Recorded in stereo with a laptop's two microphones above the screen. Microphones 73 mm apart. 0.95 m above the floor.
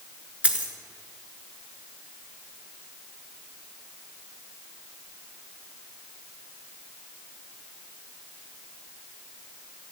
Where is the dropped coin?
15° right (ahead or behind), 4 m.